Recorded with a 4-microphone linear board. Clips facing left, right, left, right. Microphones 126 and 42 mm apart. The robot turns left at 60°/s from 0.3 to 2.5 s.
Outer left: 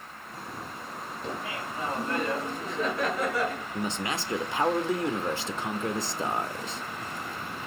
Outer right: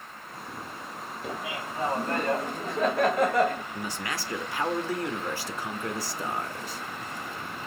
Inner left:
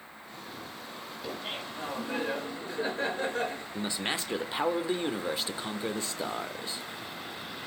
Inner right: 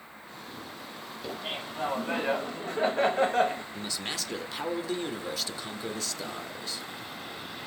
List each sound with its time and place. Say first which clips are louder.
1.2 s laughter: outer right 1 dB, inner right 2 dB; 5° right, 2 m; by 3.6 s 80° right, 2 m
3.7 s a man speaking: outer left 3 dB, inner left 3 dB; 25° left (ahead or behind), 0.9 m